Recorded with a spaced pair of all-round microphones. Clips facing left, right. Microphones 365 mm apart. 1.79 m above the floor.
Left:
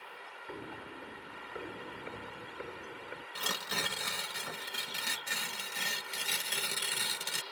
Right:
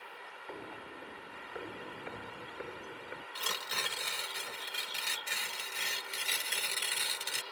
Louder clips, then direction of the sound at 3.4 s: Left 6 dB; 65° left (ahead or behind).